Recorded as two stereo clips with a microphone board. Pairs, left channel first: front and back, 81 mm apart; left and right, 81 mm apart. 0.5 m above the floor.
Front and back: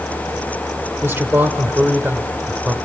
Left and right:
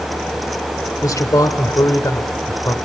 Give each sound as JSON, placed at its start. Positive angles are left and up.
{"t": 1.0, "sound": "a man speaking", "azimuth_deg": 120, "distance_m": 1.3}